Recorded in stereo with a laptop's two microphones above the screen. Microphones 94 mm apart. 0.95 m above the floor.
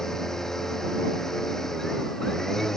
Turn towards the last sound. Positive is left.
turn(degrees=5)  # may be behind; listen again after turning